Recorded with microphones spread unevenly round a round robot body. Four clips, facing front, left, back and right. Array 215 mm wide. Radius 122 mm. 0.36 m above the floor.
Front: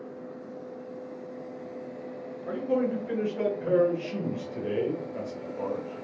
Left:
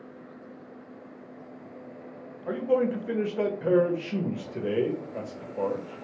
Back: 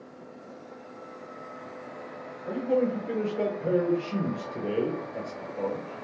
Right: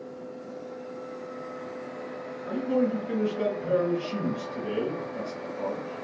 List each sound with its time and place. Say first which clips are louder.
2.5 s a man speaking: left 1 dB, back 1 dB; 110° left, 1.2 m